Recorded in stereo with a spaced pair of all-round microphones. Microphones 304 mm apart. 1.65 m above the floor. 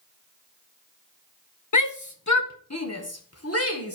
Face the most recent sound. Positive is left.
turn(degrees=45)  # may be behind; listen again after turning